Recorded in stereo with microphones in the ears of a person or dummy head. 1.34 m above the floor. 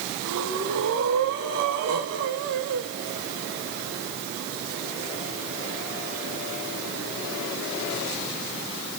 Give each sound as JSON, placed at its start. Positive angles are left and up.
{"t": 0.2, "sound": "breathing", "side_deg": -65, "distance_m": 2.0}